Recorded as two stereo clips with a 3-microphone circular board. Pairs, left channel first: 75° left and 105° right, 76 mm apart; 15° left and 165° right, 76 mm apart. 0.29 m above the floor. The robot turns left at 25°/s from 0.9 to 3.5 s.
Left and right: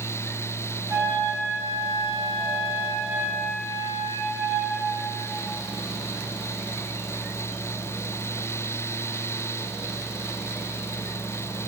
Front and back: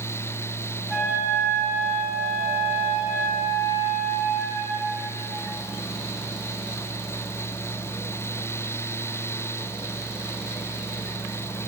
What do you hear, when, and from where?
0.9 s a flute: 95° right, 2.0 m; by 4.8 s 160° right, 2.0 m